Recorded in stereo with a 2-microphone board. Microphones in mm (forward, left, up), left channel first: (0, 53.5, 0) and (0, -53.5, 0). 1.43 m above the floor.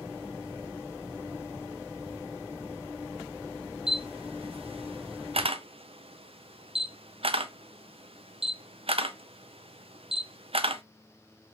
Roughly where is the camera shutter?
Right.